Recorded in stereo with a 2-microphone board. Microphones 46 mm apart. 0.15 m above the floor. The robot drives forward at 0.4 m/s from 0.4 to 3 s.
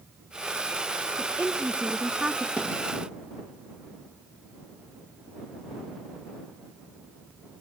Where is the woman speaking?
30° right (ahead or behind), 1.5 m; by 2.5 s 25° right (ahead or behind), 1.8 m.